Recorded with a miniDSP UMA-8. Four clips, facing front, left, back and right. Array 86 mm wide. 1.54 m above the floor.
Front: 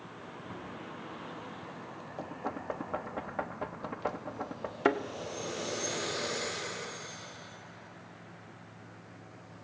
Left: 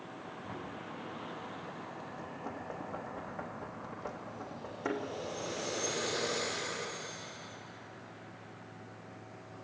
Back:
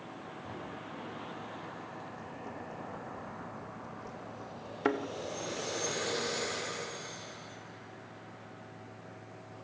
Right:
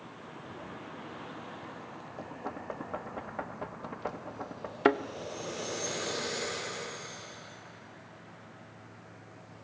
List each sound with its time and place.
0.4 s knocking: 125° left, 9 m
2.2 s knocking: 25° right, 1.1 m
4.8 s a thud: 75° right, 1.1 m